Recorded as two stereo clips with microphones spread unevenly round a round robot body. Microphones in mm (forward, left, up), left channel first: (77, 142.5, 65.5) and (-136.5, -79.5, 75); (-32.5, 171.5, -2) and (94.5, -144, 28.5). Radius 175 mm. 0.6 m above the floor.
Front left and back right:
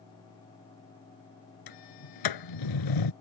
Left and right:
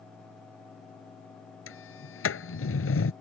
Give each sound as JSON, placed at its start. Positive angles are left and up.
{"t": 1.7, "sound": "a sliding door", "azimuth_deg": 55}